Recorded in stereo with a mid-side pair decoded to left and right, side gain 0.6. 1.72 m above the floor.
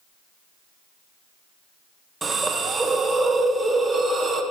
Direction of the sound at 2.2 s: 20° right.